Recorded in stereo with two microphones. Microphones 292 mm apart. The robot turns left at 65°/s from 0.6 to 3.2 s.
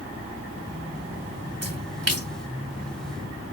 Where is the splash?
55° right (ahead or behind), 0.8 m; by 2.3 s 50° right (ahead or behind), 0.8 m.